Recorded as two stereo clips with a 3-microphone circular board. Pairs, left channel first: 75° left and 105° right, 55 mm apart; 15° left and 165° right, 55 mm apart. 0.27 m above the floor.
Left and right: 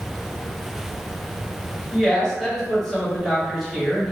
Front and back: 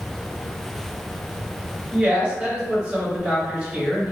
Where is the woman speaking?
155° left, 1.3 m.